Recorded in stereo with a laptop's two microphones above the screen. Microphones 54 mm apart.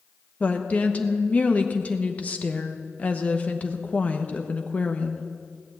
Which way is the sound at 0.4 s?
30° left (ahead or behind).